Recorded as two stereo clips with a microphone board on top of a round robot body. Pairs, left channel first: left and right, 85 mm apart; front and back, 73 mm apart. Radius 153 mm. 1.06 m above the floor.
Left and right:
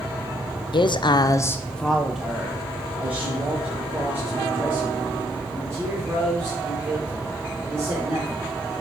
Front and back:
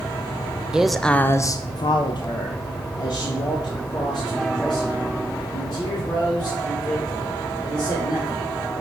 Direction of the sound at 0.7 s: 100° left.